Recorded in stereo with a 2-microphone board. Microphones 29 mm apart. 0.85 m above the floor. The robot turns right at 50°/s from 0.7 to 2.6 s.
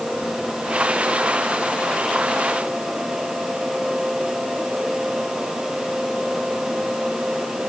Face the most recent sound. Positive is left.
No sound to turn to.